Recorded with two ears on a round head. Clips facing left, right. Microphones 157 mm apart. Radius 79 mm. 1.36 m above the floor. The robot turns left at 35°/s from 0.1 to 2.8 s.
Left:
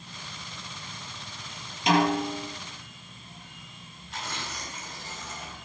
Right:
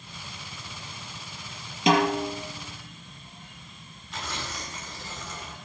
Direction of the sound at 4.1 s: 70° right (ahead or behind).